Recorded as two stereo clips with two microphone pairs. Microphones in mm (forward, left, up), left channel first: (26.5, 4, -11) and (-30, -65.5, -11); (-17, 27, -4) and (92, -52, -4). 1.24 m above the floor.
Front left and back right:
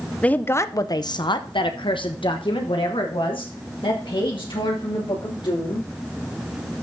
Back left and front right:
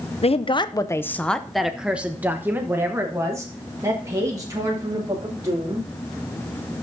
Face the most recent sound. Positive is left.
turn(degrees=25)